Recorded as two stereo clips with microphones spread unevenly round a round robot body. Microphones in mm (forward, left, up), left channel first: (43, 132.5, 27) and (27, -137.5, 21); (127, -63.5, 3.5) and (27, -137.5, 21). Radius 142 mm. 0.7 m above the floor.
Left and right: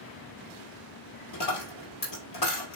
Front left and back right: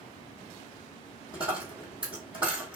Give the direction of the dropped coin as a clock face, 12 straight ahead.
8 o'clock.